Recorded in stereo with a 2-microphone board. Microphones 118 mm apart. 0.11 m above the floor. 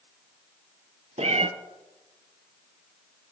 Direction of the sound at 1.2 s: 60° right (ahead or behind).